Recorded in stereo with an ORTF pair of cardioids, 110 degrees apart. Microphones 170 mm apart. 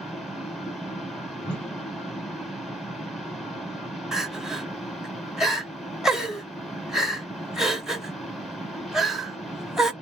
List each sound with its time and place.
0.0 s a fan: straight ahead, 0.9 m
1.4 s a whoosh: 5° left, 0.8 m
4.1 s crying: 5° right, 0.8 m